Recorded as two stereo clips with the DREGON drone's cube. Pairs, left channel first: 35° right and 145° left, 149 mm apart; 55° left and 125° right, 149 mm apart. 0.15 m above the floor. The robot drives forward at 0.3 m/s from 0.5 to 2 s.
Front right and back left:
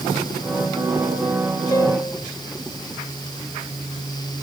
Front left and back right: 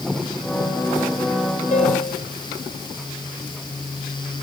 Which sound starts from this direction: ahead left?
A piano, at 1.7 s.